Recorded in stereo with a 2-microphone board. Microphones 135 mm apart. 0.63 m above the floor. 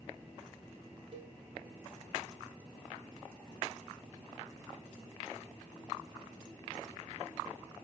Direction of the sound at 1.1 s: 45° right (ahead or behind).